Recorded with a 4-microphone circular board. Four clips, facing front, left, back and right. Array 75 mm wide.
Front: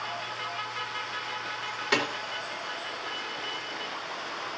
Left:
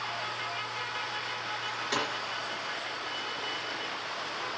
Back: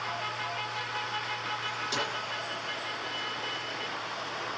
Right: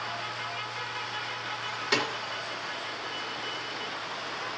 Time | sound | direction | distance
1.9 | a snare drum | 20° right | 3.5 m